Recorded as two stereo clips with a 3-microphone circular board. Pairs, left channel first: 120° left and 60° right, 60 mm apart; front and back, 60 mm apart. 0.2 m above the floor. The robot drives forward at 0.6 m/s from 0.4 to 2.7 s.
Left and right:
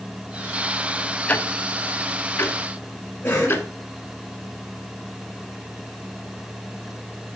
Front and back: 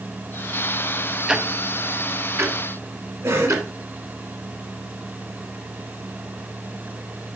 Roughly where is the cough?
Behind.